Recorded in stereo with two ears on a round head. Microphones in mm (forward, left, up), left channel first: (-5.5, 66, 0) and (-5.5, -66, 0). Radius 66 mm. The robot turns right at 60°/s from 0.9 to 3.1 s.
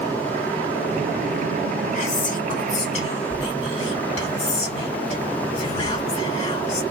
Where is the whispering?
55° left, 1.8 m; by 6.8 s 125° left, 1.8 m.